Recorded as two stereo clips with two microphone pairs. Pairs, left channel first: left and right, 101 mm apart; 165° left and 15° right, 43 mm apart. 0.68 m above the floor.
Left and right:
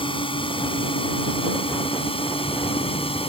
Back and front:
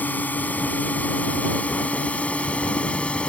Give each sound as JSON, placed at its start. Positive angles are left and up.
{"t": 0.0, "sound": "a drone", "azimuth_deg": 115}